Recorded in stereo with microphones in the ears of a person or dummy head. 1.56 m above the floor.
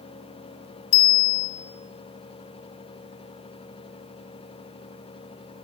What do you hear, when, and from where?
0.9 s a bicycle bell: 80° left, 5 m